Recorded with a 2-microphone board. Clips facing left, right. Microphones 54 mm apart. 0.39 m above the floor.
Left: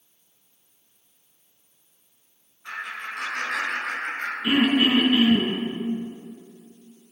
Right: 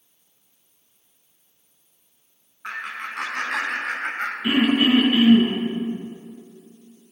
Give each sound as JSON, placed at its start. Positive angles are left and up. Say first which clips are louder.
{"t": 2.6, "sound": "laughter", "louder": "right 2 dB", "side_deg": -65, "distance_m": 3.5}
{"t": 4.4, "sound": "throat clearing", "louder": "right 1 dB", "side_deg": -25, "distance_m": 3.5}